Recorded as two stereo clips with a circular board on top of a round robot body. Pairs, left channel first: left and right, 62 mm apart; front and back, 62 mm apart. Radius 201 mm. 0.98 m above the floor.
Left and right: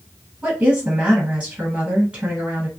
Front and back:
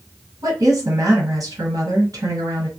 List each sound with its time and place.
0.4 s a woman speaking: 155° right, 1.4 m